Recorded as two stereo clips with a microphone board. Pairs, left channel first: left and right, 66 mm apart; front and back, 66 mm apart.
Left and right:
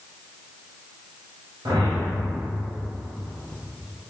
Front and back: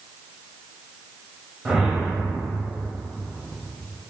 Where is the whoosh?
95° right, 0.9 m.